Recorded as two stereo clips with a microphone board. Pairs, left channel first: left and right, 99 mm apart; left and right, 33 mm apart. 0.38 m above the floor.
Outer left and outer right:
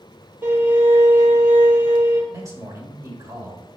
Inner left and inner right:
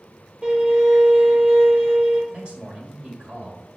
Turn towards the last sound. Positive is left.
turn(degrees=-35)  # may be behind; listen again after turning